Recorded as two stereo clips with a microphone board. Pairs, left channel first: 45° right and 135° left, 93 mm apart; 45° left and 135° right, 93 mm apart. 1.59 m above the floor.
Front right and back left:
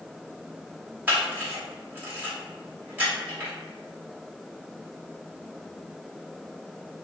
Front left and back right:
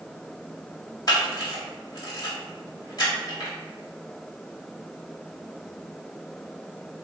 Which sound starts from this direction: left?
A camera shutter, at 1.1 s.